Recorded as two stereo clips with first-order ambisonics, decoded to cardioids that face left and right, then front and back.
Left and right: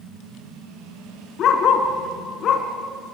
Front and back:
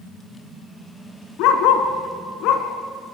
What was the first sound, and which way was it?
A dog barking, 35° left.